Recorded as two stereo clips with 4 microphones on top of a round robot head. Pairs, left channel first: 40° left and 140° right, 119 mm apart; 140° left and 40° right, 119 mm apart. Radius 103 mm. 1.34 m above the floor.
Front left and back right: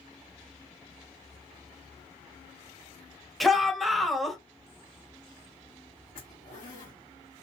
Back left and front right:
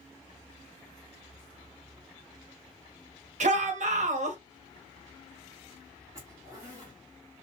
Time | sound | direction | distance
3.4 | a shout | 50° right | 1.2 m
6.2 | a zipper | 25° left | 1.6 m